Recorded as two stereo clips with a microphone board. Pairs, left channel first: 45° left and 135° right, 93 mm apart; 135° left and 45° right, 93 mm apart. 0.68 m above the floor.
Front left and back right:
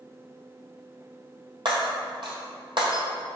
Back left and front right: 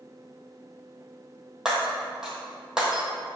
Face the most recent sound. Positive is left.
turn(degrees=-130)